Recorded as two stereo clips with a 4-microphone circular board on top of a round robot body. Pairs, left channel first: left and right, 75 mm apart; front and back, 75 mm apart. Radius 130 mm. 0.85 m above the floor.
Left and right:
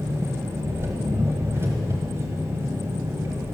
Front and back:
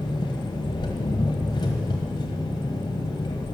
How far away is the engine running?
About 1.2 m.